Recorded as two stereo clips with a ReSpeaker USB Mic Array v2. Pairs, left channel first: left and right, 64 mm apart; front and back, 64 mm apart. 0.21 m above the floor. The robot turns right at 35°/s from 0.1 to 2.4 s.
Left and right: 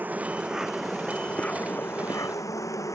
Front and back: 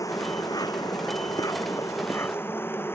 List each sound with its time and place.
0.0 s an insect: 25° right; by 3.0 s 55° left